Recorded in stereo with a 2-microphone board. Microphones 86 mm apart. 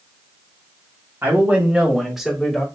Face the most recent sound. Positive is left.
turn(degrees=10)  # may be behind; listen again after turning